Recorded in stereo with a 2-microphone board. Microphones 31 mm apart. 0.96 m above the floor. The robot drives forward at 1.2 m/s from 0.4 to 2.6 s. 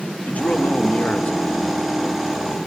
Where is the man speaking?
55° left (ahead or behind), 1.8 m.